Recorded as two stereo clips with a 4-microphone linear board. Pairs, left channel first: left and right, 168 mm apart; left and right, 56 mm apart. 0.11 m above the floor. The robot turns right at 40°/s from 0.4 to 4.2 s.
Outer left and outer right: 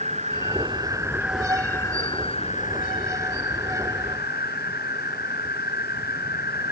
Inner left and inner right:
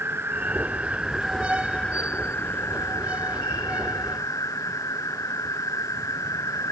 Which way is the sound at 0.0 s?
40° right.